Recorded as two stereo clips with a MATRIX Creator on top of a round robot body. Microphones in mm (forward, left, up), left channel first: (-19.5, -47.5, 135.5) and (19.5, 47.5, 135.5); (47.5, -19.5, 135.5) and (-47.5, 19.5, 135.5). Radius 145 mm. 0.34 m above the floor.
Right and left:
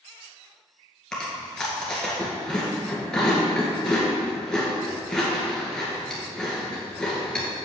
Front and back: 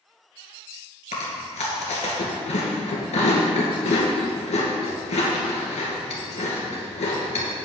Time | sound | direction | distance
1.1 | chewing | 30° right | 2 m